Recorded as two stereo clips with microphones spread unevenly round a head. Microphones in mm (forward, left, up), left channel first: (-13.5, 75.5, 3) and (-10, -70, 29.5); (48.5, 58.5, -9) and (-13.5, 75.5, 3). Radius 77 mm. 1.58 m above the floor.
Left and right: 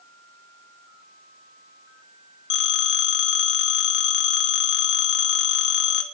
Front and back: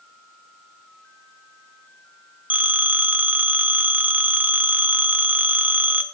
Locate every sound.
2.5 s a phone ringing: 105° left, 1.2 m